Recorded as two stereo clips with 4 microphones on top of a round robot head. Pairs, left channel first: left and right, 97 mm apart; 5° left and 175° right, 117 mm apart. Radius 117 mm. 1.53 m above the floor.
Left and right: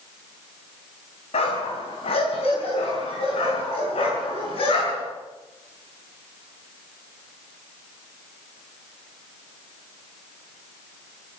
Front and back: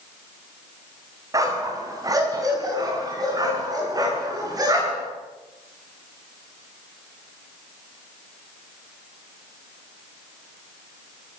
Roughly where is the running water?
I don't hear running water.